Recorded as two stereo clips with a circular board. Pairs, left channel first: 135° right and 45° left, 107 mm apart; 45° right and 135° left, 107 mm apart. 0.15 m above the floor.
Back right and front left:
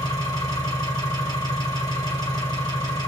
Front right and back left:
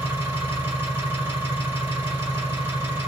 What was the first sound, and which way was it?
An engine running, 160° right.